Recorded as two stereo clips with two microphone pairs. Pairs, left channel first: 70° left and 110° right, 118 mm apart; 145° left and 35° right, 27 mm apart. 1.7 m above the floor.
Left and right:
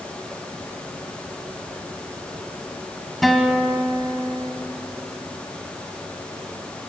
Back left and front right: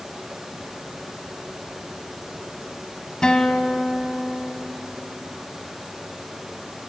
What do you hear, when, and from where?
3.2 s a guitar: 160° left, 1.8 m